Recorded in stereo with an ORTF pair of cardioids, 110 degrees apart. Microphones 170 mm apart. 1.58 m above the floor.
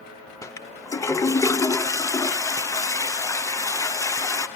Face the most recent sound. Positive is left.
turn(degrees=20)